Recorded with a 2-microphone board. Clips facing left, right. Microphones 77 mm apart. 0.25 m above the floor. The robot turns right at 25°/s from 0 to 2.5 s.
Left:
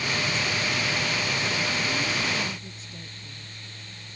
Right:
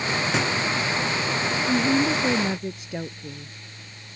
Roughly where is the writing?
Right.